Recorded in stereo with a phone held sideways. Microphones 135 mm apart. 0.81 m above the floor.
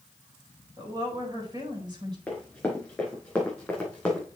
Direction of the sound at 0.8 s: 30° right (ahead or behind).